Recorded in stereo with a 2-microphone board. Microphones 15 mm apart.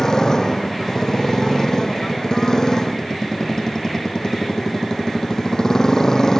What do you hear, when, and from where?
0.0 s a motorcycle: 35° left (ahead or behind)